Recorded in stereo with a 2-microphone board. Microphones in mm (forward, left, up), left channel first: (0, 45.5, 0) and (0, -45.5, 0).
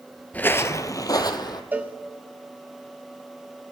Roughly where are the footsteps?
Centre.